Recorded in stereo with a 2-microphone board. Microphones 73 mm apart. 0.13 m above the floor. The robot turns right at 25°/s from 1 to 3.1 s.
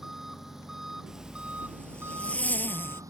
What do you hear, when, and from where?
0.0 s an engine running: 175° right; by 3.1 s 120° right
1.1 s a zipper: 10° right; by 3.0 s 40° left